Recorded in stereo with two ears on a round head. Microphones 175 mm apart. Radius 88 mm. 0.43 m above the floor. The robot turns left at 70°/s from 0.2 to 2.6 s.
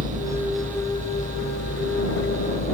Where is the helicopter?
155° right; by 2.8 s 40° left.